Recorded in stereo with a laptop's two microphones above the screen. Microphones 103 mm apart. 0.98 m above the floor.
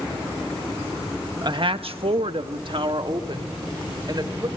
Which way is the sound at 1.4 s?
45° right (ahead or behind).